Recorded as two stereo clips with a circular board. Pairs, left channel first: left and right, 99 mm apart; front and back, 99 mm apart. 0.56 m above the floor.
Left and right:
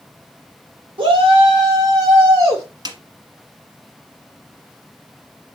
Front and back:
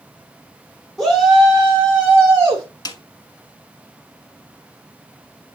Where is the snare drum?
45° right, 1.2 m.